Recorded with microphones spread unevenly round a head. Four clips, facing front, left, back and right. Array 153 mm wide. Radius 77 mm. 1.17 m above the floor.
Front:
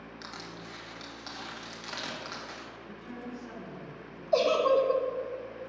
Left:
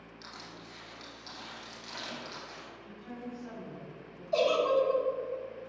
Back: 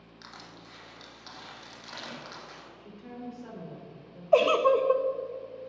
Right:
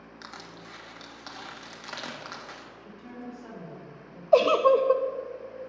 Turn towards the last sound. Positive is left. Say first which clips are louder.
# right 7 dB, back 2 dB
turn(degrees=-110)